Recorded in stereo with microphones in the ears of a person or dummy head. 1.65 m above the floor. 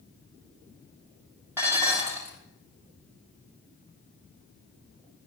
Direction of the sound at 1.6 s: 15° right (ahead or behind).